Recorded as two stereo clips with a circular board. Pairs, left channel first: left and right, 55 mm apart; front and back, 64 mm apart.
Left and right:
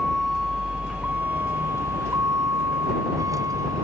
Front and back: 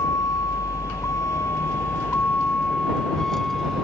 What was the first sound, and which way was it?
A vehicle, straight ahead.